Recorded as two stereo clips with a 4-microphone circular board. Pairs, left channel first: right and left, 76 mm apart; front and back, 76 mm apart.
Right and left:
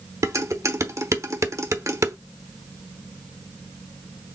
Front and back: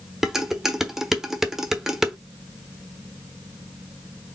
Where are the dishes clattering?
95° left, 0.9 m.